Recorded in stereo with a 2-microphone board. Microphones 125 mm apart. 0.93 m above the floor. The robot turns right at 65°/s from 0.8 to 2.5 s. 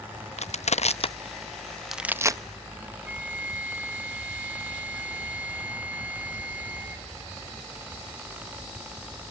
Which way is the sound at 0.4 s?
70° left (ahead or behind).